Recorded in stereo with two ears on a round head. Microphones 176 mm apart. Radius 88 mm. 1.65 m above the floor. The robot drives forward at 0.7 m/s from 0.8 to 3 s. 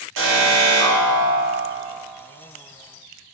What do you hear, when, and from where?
0.2 s an alarm: 75° right (ahead or behind), 2 m; by 1.9 s 60° right (ahead or behind), 2.5 m